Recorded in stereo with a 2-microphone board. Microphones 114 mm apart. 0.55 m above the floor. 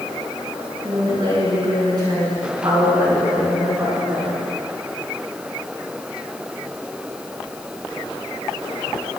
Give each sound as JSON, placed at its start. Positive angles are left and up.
{"t": 0.8, "sound": "a woman speaking", "side_deg": -50, "distance_m": 7.0}